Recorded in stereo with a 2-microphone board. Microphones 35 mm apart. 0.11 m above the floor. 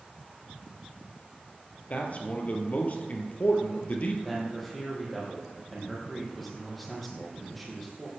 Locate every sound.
1.9 s a man speaking: 45° left (ahead or behind), 2.5 m
4.2 s a man speaking: 5° left (ahead or behind), 5 m